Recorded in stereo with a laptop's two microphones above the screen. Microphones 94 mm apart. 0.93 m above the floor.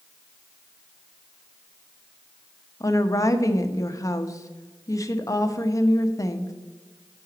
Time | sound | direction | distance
2.8 | a woman speaking | 35° left (ahead or behind) | 0.8 m